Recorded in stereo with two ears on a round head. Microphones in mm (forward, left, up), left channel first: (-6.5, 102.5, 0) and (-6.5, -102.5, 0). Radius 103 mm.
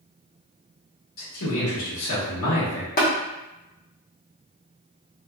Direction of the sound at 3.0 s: 40° left (ahead or behind).